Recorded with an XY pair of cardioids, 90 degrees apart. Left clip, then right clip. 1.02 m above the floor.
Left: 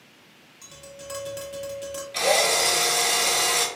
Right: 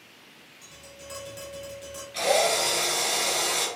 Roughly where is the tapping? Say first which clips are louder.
Left 5 dB; ahead left.